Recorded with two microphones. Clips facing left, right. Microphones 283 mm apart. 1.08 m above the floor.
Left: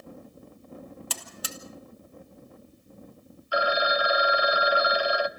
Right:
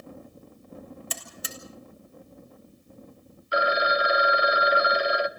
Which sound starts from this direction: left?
A buzzer, at 1.1 s.